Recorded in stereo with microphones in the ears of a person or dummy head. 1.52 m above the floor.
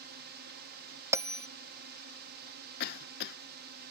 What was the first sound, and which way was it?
A drone, 55° right (ahead or behind).